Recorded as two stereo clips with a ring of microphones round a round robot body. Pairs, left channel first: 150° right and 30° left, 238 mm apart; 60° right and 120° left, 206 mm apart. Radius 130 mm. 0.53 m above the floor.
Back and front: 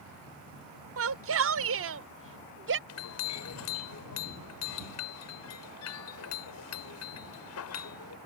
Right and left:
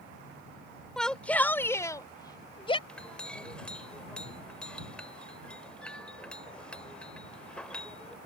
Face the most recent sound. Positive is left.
turn(degrees=-145)